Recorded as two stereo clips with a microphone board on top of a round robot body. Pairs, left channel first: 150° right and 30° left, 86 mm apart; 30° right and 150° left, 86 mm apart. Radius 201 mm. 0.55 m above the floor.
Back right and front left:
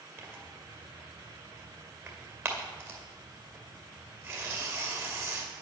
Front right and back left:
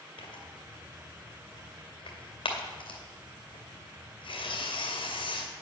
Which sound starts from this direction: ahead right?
Tearing paper, at 0.2 s.